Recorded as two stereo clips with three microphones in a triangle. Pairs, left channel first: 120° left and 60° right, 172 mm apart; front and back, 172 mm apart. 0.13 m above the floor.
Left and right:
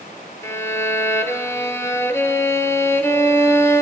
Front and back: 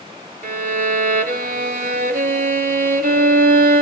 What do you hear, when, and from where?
0.4 s a violin: 170° right, 0.5 m